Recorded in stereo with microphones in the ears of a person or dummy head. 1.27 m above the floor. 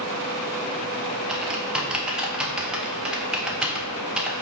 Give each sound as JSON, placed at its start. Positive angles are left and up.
{"t": 1.3, "sound": "typing on a keyboard", "side_deg": -5, "distance_m": 0.8}